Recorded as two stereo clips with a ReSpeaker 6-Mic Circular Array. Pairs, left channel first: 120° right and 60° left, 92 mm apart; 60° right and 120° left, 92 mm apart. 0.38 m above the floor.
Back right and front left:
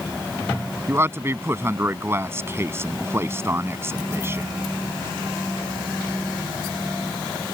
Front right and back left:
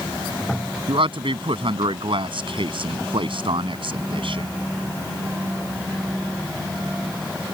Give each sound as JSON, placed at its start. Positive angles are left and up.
{"t": 0.9, "sound": "a man speaking", "azimuth_deg": 120}